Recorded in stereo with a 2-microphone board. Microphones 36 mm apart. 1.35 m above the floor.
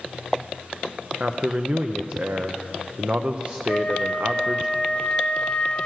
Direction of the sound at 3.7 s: 40° left (ahead or behind).